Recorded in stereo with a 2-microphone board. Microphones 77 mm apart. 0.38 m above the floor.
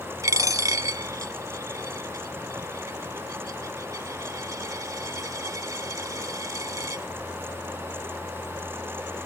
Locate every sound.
0.2 s a dropped coin: 45° right (ahead or behind), 0.7 m